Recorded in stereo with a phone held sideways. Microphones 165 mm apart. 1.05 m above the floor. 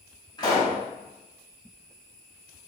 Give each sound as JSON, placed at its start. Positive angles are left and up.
{"t": 0.4, "sound": "a pop", "side_deg": 25, "distance_m": 1.3}